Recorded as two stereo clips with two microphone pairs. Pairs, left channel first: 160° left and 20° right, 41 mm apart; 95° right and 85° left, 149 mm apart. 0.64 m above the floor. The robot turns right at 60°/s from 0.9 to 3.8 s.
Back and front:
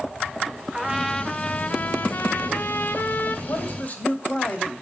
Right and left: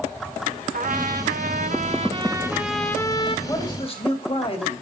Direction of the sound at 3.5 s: 165° right.